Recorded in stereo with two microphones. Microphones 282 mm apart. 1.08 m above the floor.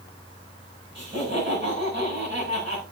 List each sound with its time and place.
0.9 s laughter: 40° right (ahead or behind), 6 m